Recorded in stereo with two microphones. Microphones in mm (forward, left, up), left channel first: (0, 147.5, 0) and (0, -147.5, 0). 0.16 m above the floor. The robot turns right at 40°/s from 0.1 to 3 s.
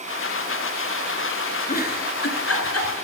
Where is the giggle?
30° left (ahead or behind), 1.2 m; by 3.0 s 60° left (ahead or behind), 1.2 m.